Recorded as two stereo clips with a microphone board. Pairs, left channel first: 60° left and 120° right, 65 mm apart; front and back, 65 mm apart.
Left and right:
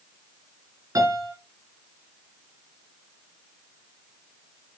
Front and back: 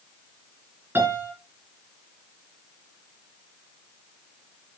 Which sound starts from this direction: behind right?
A piano, at 0.9 s.